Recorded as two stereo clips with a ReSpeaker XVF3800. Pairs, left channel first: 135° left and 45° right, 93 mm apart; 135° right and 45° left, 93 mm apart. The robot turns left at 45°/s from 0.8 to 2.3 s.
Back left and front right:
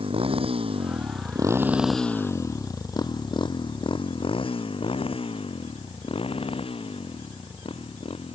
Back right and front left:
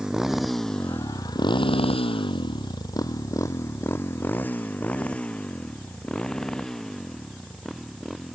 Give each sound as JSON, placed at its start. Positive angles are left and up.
{"t": 0.0, "sound": "a motorcycle", "azimuth_deg": -35}